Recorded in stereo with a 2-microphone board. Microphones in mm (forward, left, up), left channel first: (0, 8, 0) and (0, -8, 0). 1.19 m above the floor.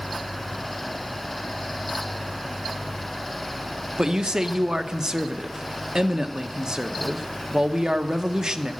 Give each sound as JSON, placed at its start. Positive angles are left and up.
{"t": 4.0, "sound": "a man speaking", "side_deg": -40, "distance_m": 0.8}